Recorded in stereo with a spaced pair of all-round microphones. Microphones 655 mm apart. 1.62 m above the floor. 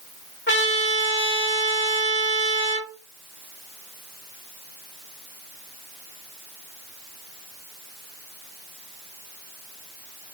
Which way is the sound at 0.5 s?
15° left (ahead or behind).